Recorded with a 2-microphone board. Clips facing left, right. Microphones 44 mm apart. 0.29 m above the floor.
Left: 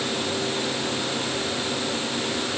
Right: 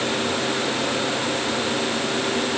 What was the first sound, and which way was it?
Only background noise.